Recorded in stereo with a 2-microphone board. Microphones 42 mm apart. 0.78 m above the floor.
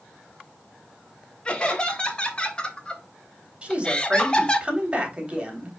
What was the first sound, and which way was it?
Laughter, 25° left (ahead or behind).